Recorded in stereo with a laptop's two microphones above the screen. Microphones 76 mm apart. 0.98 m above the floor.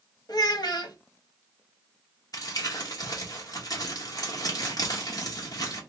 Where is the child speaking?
65° left (ahead or behind), 0.8 m.